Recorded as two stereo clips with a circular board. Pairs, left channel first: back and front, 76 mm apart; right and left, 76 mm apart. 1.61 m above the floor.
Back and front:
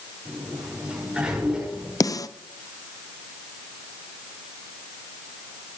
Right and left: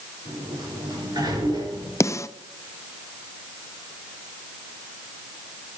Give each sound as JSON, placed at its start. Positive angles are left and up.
{"t": 0.2, "sound": "a sliding door", "azimuth_deg": 80, "distance_m": 5.5}
{"t": 2.0, "sound": "a snare drum", "azimuth_deg": -140, "distance_m": 0.5}